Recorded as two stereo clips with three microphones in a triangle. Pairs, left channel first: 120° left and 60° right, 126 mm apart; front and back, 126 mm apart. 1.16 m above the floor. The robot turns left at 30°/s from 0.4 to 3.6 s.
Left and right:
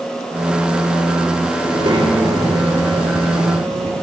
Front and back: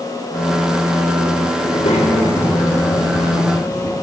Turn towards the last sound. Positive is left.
turn(degrees=-65)